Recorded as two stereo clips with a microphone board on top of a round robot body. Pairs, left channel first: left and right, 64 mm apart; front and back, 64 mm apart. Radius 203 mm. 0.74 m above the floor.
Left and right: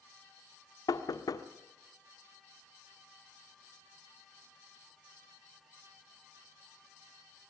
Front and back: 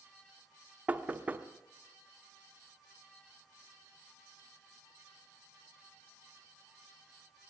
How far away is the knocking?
About 1.4 m.